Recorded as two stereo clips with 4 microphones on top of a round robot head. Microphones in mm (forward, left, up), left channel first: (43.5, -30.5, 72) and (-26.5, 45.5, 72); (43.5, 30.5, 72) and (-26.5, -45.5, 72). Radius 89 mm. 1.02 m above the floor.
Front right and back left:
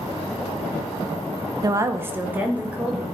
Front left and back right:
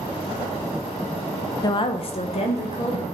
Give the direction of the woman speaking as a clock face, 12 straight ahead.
9 o'clock.